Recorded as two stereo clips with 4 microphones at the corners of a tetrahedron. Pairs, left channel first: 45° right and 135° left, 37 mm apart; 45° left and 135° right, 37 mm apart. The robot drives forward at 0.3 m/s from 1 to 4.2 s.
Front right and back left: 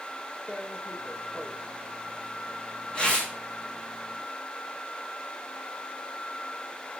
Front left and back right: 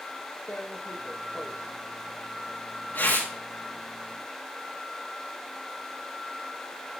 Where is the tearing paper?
15° left, 7.5 m; by 3.3 s 20° left, 6.5 m.